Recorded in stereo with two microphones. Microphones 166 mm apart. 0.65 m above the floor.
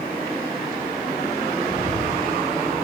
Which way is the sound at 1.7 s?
80° right.